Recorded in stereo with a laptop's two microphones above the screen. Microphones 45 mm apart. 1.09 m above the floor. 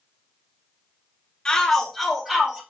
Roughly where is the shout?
Centre.